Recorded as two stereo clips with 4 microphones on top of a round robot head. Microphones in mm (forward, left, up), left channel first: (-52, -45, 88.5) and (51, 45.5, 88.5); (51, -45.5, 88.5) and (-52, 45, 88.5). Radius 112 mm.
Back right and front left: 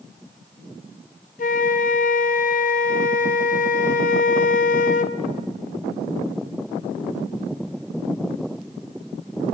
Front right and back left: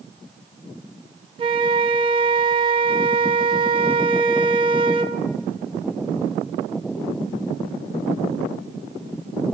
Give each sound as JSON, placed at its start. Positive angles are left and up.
{"t": 1.4, "sound": "a flute", "azimuth_deg": -165, "distance_m": 0.6}